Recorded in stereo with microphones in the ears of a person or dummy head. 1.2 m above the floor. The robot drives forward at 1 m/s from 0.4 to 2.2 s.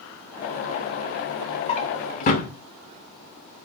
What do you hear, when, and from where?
1.7 s a drawer: 30° left (ahead or behind), 2.5 m; by 2.5 s 40° left (ahead or behind), 1.9 m